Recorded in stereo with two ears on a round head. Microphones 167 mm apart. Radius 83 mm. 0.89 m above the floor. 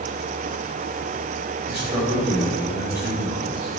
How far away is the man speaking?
About 3.5 m.